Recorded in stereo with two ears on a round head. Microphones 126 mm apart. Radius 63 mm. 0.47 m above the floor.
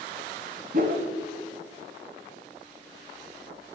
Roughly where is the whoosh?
Right.